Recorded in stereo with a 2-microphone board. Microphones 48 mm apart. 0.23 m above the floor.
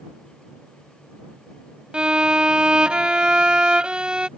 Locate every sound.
1.9 s a violin: 20° right (ahead or behind)